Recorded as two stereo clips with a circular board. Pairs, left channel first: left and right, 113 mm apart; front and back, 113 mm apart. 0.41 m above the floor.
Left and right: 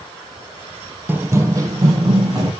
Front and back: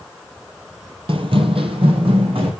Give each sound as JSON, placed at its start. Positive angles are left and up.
{"t": 1.1, "sound": "running footsteps", "azimuth_deg": -160, "distance_m": 0.6}